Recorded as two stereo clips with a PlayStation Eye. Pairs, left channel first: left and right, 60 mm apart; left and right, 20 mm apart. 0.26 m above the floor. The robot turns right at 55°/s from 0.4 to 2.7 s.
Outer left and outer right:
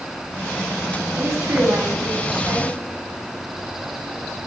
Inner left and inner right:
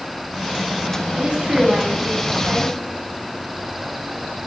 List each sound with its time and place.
1.1 s a woman speaking: 125° right, 2 m; by 2.7 s 40° right, 2 m